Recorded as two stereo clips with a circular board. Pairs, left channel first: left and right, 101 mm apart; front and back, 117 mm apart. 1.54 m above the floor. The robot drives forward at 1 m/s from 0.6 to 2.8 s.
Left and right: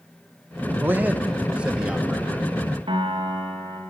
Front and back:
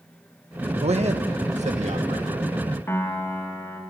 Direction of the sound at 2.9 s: 65° right.